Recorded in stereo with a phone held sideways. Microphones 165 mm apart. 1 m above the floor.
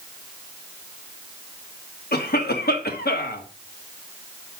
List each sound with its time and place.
2.1 s a cough: 70° left (ahead or behind), 1.6 m